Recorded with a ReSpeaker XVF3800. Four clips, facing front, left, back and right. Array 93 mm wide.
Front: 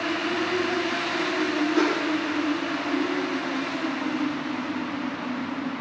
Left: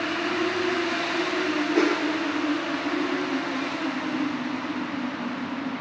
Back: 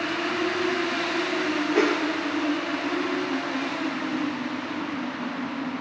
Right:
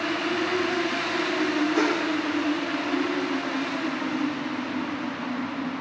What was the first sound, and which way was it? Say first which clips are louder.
A whoosh: left 1 dB, back 2 dB; 145° left.